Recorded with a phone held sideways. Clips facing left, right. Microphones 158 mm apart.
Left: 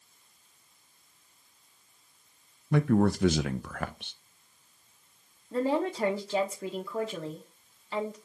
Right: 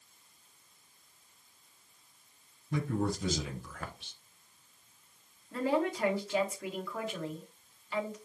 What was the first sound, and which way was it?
A man speaking, 70° left (ahead or behind).